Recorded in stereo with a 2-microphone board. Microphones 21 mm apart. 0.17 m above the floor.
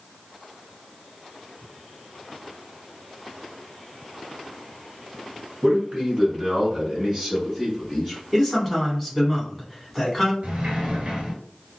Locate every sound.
5.6 s a man speaking: 45° right (ahead or behind), 1.7 m; by 8.2 s 20° right (ahead or behind), 1.4 m
8.3 s a man speaking: 5° right (ahead or behind), 1.2 m
10.4 s a sliding door: 65° right (ahead or behind), 1.2 m